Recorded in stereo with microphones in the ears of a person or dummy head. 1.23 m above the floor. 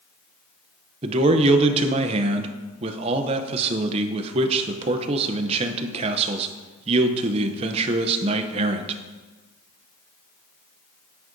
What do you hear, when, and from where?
1.0 s a man speaking: 30° right (ahead or behind), 0.6 m